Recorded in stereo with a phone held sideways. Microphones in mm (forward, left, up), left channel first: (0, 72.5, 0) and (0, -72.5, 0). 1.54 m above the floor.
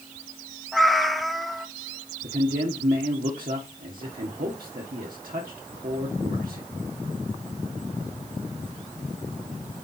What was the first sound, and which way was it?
A cat meowing, centre (ahead or behind).